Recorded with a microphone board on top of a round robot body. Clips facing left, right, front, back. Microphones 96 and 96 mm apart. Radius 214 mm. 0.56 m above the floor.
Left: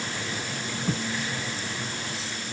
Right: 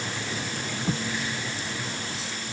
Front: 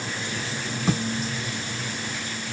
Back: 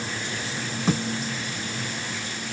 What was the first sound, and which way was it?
Only background noise.